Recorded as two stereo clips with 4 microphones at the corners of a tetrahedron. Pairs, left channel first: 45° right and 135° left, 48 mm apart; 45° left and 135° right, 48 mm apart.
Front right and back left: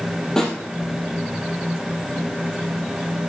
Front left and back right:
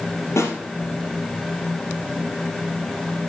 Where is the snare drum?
30° left, 3.5 m.